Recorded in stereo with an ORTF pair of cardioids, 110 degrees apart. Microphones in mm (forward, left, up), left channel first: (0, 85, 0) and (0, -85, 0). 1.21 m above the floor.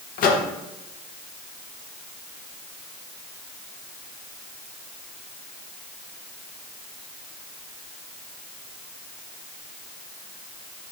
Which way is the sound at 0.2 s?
65° left.